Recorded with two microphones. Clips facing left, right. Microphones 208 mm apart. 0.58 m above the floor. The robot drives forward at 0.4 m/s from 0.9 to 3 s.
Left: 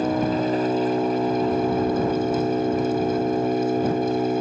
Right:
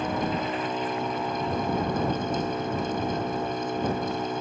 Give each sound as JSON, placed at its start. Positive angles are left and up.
{"t": 0.0, "sound": "an engine running", "side_deg": 35}